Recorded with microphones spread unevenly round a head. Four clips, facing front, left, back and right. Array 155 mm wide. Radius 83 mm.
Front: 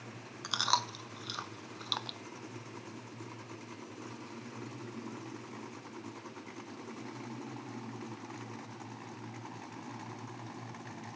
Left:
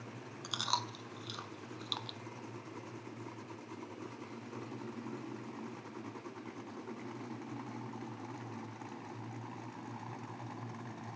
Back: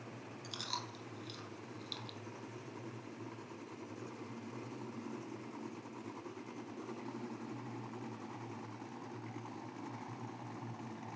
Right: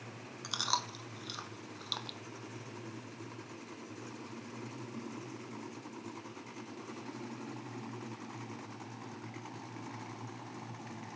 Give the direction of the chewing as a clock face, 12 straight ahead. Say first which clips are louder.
Right 1 dB, front 13 dB; 12 o'clock.